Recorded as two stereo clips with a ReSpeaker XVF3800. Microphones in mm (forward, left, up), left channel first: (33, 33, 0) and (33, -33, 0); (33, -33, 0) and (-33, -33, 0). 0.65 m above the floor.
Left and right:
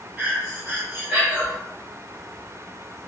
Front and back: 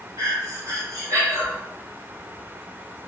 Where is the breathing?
145° right, 1.0 m.